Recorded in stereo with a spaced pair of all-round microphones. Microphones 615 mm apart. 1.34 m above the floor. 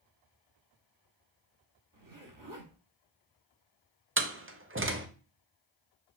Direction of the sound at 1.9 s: 30° right (ahead or behind).